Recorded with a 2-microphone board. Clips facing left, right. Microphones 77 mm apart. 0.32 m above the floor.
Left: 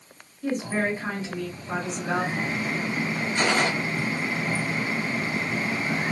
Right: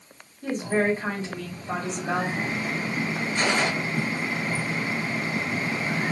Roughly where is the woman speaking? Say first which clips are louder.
Right 2 dB; right.